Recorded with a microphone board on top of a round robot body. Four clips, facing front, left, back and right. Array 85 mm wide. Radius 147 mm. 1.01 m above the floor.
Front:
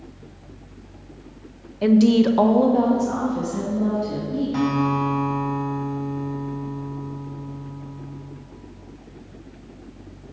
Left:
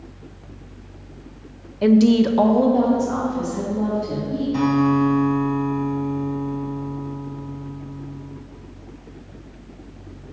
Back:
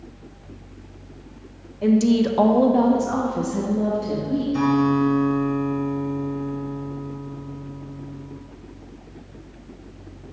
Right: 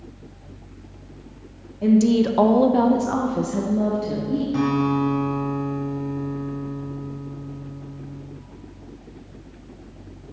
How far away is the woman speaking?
About 0.7 m.